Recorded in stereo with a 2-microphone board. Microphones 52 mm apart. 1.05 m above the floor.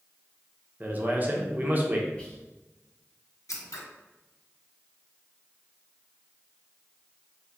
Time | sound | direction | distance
0.8 | a man speaking | 35° right (ahead or behind) | 0.7 m
2.2 | whispering | 20° left (ahead or behind) | 1.2 m
3.5 | scissors | 85° left | 0.7 m